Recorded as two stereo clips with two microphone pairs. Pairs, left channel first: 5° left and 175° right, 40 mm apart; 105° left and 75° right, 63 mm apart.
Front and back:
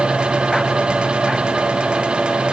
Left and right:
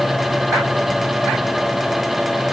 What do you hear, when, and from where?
Only background noise.